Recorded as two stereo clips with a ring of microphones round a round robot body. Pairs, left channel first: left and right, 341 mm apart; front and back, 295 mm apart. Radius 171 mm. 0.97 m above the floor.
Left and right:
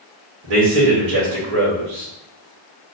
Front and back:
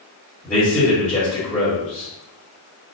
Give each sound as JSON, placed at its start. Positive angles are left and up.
{"t": 0.4, "sound": "a man speaking", "azimuth_deg": -80, "distance_m": 1.3}